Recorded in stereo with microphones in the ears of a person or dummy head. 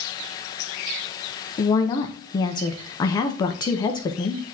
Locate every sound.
1.6 s a woman speaking: 25° left (ahead or behind), 0.7 m